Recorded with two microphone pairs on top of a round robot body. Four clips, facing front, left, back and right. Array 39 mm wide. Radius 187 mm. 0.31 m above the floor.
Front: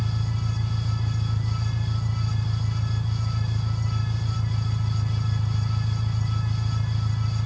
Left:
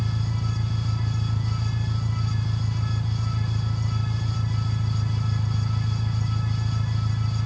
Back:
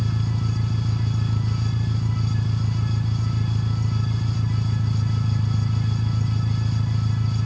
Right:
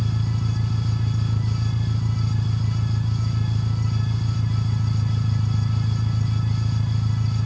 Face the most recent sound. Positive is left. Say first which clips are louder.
# right 2 dB, back 3 dB
turn(degrees=-155)